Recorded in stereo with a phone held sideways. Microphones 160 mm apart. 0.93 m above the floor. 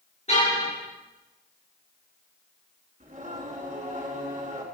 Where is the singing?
50° right (ahead or behind), 5 m.